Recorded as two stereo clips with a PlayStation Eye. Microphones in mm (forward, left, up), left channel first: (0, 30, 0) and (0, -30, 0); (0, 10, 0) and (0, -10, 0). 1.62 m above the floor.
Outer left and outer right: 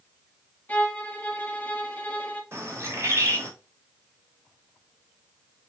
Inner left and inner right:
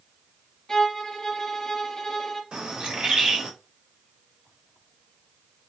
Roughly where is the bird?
Right.